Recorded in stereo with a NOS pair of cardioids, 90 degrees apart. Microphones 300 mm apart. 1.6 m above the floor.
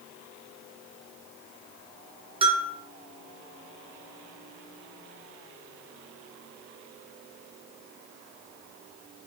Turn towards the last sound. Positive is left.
turn(degrees=-20)